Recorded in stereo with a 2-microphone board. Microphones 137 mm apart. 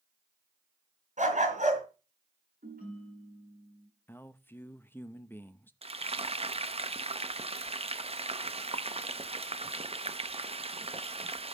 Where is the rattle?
No rattle in this recording.